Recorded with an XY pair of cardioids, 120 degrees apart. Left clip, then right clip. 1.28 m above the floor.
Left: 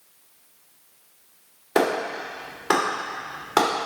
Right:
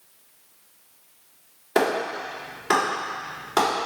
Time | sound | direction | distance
1.8 | a clap | 30° left | 4 m